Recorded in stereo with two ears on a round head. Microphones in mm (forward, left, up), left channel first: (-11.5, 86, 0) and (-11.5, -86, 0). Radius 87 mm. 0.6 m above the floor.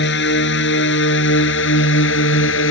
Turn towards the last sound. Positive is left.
turn(degrees=75)  # may be behind; listen again after turning